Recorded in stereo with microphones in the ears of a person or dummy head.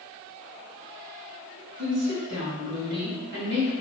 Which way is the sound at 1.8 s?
50° right (ahead or behind).